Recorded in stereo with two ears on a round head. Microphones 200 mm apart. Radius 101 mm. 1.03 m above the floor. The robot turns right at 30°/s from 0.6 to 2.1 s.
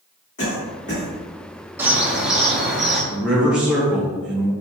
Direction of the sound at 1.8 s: 10° right (ahead or behind).